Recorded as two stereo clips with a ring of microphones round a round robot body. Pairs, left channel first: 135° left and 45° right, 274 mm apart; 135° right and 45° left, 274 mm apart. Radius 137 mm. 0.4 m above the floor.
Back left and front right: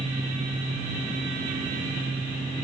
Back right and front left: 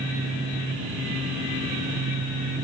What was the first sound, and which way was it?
Only background noise.